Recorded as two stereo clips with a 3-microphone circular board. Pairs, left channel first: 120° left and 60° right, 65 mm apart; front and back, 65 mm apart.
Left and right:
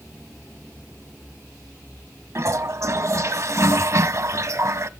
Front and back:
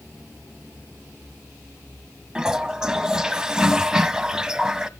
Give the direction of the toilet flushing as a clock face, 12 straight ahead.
3 o'clock.